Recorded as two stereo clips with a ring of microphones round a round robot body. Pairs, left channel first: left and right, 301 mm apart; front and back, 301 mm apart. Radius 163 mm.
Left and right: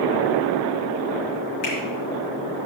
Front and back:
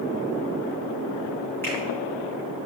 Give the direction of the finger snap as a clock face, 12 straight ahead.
9 o'clock.